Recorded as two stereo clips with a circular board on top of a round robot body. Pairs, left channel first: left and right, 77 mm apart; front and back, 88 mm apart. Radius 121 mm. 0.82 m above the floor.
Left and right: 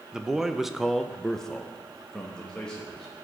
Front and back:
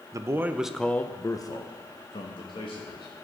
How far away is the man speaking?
About 0.9 m.